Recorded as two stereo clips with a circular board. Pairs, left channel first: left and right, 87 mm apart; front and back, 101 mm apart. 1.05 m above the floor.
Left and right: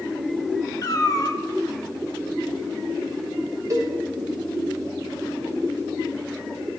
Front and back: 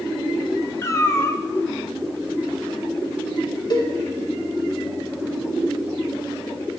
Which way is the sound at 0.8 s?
55° left.